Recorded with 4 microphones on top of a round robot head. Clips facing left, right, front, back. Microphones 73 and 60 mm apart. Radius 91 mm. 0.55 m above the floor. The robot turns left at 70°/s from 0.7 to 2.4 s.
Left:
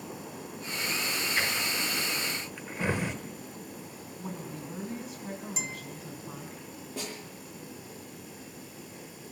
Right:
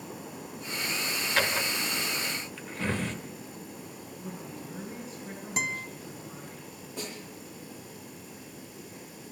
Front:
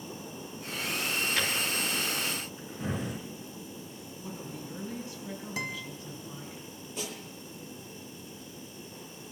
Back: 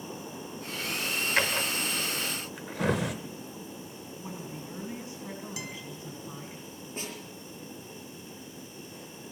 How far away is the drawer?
About 1.3 m.